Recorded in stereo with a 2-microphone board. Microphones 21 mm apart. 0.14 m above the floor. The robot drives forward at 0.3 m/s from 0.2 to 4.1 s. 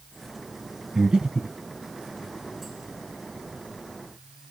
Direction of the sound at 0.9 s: 35° right (ahead or behind).